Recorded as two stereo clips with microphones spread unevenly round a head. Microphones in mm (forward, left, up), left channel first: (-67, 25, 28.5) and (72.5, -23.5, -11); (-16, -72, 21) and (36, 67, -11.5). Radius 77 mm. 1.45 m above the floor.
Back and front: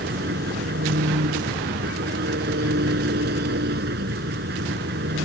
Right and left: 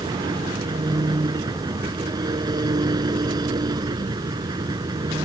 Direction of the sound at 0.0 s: 5° left.